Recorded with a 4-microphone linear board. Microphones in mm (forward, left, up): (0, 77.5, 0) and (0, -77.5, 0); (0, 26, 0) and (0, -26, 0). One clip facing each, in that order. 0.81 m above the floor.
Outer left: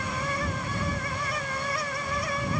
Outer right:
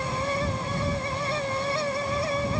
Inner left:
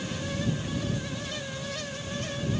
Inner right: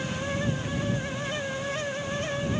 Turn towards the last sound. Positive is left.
No sound to turn to.